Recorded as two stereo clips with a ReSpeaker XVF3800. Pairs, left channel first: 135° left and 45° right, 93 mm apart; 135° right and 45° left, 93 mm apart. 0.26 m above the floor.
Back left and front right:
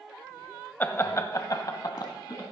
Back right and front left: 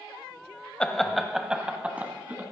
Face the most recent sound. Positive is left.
turn(degrees=110)